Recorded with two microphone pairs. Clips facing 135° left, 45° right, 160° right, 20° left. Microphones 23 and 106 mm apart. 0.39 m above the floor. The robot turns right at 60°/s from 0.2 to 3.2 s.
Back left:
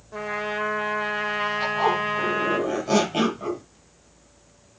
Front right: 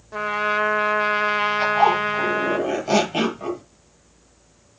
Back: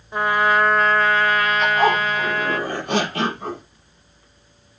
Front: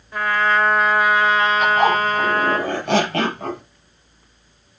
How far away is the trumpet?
About 1.2 m.